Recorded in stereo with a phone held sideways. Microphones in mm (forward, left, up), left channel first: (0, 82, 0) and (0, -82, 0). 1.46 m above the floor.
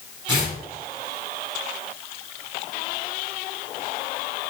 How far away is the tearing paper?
About 2.5 m.